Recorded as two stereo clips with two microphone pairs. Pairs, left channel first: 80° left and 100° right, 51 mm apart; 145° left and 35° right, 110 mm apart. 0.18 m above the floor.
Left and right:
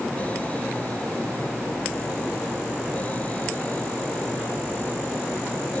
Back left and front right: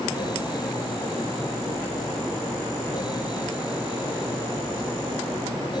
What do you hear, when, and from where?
Only background noise.